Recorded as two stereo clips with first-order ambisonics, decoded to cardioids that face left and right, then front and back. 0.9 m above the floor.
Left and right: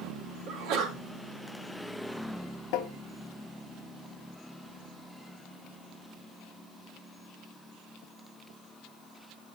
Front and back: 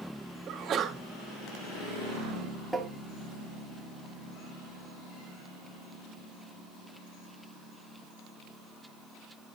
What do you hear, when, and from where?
0.5 s a sneeze: 125° right, 1.3 m
2.7 s tapping: 90° left, 0.8 m